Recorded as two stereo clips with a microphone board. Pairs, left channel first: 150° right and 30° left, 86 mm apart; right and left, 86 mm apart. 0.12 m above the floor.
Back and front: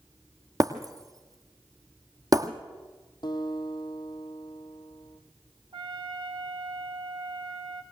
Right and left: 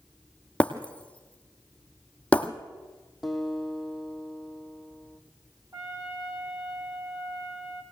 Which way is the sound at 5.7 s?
45° left.